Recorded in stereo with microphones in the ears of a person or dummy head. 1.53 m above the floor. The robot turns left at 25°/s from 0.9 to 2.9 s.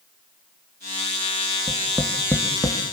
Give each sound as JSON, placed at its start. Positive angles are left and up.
{"t": 1.7, "sound": "tapping", "side_deg": -15, "distance_m": 1.9}